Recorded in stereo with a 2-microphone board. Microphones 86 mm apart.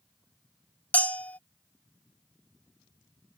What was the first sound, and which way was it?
A bell, 15° left (ahead or behind).